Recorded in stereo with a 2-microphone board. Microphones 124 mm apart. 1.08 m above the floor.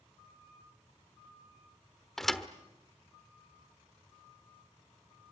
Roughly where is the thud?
Centre.